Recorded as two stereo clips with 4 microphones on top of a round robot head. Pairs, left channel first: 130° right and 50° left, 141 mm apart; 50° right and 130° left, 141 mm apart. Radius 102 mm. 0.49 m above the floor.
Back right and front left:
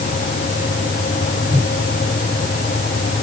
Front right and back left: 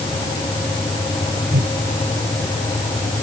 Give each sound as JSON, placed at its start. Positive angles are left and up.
{"t": 1.5, "sound": "a whoosh", "azimuth_deg": 135}